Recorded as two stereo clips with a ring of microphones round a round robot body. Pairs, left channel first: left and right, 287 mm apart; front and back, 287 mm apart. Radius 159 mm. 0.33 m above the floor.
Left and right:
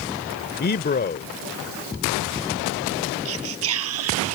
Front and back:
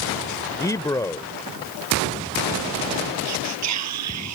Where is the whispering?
140° right.